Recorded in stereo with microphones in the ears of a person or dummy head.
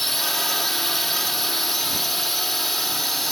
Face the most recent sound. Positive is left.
turn(degrees=0)  # may be behind; listen again after turning